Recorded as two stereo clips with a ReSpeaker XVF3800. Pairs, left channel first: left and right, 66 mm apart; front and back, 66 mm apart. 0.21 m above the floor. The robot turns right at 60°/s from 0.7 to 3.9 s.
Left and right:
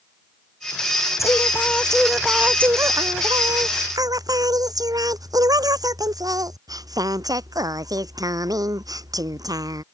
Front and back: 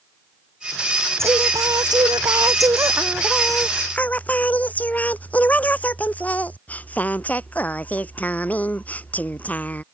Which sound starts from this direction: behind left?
Singing, at 1.2 s.